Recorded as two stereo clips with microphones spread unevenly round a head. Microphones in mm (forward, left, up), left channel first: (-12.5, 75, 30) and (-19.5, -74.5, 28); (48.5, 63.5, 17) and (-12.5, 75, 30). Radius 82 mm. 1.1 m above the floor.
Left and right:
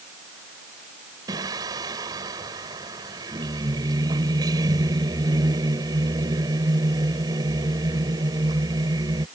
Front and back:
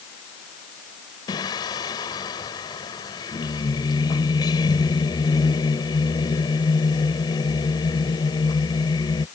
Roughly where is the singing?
Ahead right.